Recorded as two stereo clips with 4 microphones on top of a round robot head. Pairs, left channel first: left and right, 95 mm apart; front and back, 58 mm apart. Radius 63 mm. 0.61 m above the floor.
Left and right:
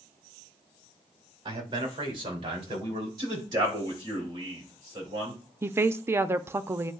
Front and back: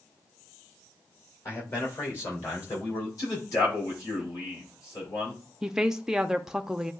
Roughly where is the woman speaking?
Behind right.